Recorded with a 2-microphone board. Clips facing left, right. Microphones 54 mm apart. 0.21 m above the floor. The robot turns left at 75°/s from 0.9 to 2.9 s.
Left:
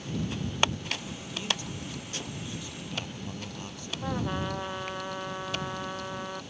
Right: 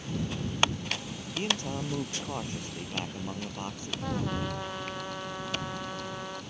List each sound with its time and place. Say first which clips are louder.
1.4 s a man speaking: right 3 dB; 35° right; by 3.9 s 150° right
4.0 s a trumpet: left 1 dB; 10° left (ahead or behind)